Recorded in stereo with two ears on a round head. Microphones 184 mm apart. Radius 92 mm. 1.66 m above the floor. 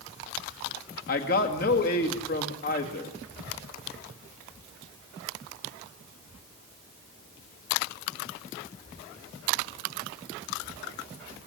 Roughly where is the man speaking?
Left.